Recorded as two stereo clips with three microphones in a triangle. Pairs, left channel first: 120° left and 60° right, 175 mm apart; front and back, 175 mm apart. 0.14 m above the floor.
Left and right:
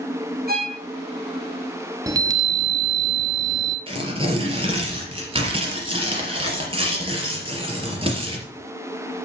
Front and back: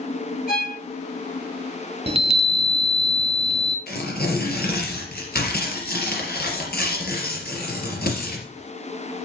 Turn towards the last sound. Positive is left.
turn(degrees=-5)